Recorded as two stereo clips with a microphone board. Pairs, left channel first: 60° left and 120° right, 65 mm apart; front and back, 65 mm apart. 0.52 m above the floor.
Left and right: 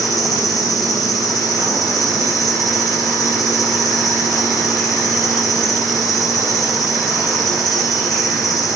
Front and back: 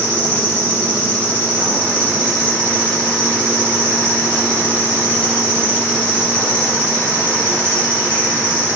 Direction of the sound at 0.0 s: 65° left.